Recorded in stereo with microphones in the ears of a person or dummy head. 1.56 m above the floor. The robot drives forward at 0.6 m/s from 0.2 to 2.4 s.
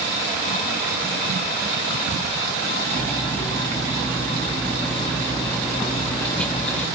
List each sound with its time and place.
2.9 s cutlery clinking: 5° left (ahead or behind), 1.2 m